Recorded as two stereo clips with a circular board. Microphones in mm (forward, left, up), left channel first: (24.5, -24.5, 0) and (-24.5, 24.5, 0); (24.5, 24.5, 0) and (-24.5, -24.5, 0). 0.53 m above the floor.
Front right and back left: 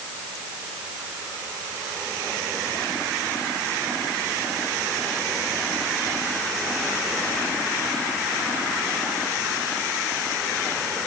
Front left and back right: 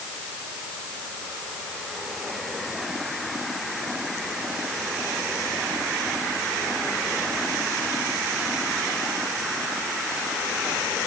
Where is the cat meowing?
No cat meowing in this recording.